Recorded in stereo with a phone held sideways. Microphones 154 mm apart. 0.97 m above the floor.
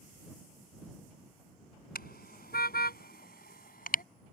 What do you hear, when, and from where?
1.9 s a car horn: 80° left; by 4.0 s 65° left (ahead or behind)